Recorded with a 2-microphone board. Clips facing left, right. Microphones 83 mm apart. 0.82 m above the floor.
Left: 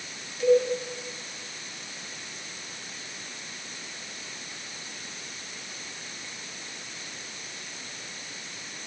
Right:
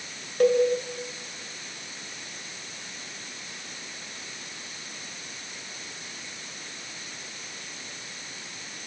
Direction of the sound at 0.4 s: 55° right (ahead or behind).